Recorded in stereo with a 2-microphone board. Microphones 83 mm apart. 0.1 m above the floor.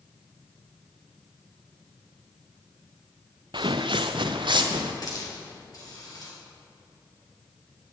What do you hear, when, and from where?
3.5 s footsteps: 70° right (ahead or behind), 0.5 m; by 4.9 s 75° right (ahead or behind), 1.4 m
5.0 s a hiss: 50° left (ahead or behind), 2.5 m